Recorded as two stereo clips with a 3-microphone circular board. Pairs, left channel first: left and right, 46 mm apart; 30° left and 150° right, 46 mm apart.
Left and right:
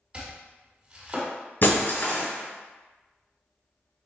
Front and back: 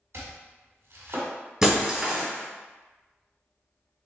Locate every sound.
0.1 s chopping: 155° right, 1.6 m
1.6 s breaking glass: 130° left, 1.5 m